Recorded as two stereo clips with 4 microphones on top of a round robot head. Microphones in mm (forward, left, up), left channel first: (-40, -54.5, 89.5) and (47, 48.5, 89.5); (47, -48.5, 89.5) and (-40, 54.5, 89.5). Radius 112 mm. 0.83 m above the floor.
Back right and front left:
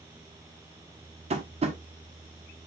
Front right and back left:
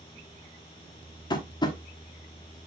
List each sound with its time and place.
1.3 s tapping: 10° left, 1.3 m